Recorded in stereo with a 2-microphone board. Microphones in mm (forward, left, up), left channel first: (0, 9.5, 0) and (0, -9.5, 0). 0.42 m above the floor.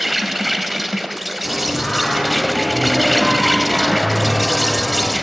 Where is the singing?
40° left (ahead or behind), 9 m.